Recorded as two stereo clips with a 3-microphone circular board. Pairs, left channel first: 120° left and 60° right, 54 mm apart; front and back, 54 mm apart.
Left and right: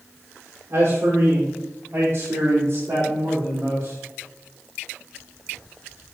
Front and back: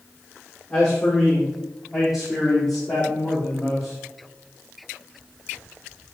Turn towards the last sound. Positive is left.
turn(degrees=-100)